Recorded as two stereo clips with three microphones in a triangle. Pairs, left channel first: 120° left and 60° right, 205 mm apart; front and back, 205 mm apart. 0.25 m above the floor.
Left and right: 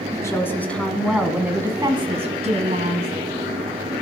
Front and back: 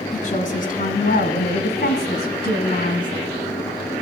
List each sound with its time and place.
0.1 s a woman speaking: 50° left, 2 m; by 3.1 s 35° right, 1.7 m